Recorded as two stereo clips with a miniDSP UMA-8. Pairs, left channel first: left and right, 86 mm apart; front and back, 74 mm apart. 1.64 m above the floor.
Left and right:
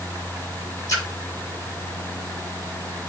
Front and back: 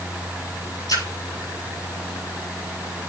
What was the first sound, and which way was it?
A splash, 35° left.